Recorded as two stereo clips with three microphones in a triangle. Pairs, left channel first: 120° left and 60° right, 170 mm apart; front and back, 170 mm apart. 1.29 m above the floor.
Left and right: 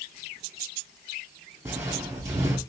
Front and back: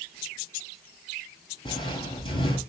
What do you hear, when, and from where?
1.6 s footsteps: 10° right, 1.4 m